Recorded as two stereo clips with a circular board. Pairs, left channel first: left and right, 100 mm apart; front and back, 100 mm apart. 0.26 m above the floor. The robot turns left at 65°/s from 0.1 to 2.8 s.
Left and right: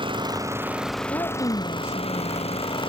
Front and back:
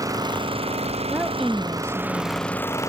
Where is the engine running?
125° right; by 2.9 s 60° left.